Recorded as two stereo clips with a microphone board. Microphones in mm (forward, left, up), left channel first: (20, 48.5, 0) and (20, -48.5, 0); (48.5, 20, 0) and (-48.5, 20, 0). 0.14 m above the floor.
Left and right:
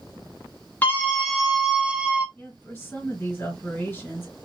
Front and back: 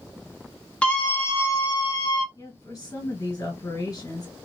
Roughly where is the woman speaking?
Ahead left.